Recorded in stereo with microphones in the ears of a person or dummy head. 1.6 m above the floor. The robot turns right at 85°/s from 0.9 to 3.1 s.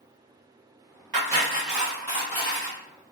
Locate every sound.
1.1 s cutlery clinking: 25° right (ahead or behind), 0.9 m; by 2.8 s 25° left (ahead or behind), 0.9 m